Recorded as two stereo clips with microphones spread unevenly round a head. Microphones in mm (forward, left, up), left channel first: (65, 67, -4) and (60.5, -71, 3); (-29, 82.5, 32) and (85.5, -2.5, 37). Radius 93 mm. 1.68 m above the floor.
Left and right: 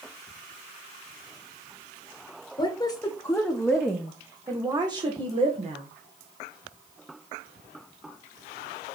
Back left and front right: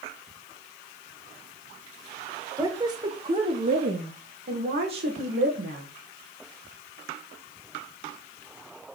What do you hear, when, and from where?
2.6 s a woman speaking: 30° left, 1.7 m; by 5.9 s 45° right, 2.5 m